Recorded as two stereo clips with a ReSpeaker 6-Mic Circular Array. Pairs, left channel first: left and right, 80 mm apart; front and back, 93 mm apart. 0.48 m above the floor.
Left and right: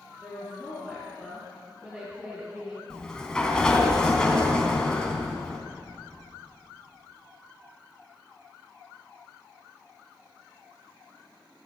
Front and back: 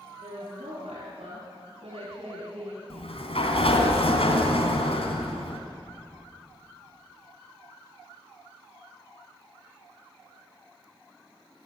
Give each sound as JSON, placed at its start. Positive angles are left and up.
{"t": 0.2, "sound": "a woman speaking", "azimuth_deg": 160, "distance_m": 6.5}
{"t": 2.9, "sound": "a sliding door", "azimuth_deg": 10, "distance_m": 3.0}